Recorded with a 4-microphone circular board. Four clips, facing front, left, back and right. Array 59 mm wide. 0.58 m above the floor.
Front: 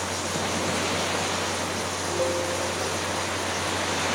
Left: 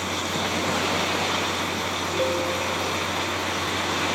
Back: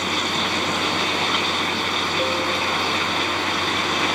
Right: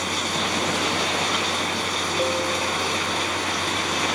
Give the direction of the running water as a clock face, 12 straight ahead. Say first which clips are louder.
Right 1 dB, back 5 dB; 6 o'clock.